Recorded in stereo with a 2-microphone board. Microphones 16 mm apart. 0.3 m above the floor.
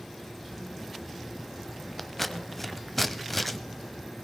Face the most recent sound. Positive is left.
turn(degrees=10)  # may be behind; listen again after turning